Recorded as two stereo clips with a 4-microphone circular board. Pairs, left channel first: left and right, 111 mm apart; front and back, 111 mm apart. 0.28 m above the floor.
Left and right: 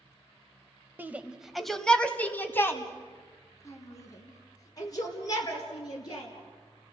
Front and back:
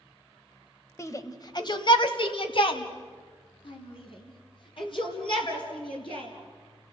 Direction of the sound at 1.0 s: 35° right.